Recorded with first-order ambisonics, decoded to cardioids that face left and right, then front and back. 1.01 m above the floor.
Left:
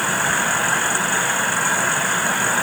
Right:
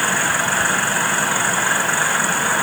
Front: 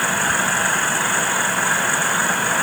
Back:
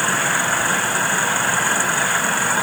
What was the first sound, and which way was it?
Only background noise.